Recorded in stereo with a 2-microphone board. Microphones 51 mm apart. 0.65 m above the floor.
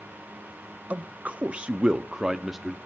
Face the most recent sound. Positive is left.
turn(degrees=-5)  # may be behind; listen again after turning